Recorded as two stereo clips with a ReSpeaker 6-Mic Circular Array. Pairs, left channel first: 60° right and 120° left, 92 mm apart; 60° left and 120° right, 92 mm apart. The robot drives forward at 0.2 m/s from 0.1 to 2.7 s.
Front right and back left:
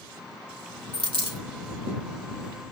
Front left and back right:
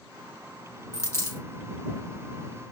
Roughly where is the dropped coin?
Behind left.